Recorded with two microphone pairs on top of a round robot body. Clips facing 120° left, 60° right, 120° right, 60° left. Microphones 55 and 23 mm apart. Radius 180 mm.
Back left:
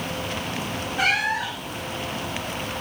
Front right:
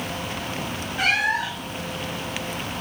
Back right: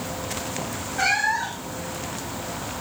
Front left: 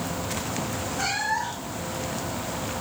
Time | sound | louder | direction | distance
1.0 | a cat meowing | front right 1 dB, back right 6 dB | 155° right | 0.5 m